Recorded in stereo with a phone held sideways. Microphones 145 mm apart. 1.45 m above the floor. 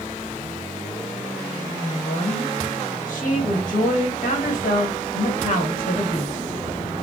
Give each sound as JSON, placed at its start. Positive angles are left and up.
{"t": 1.8, "sound": "a woman speaking", "side_deg": 70, "distance_m": 1.6}